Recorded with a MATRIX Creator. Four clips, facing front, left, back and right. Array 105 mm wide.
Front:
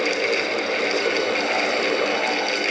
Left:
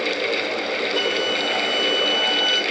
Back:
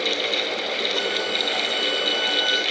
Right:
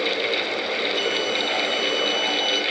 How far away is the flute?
About 1.7 m.